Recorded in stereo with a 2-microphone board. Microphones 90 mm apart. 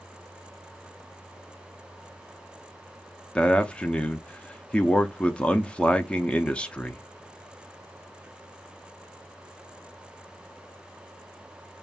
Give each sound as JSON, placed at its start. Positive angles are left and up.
{"t": 3.4, "sound": "a man speaking", "side_deg": 10, "distance_m": 0.6}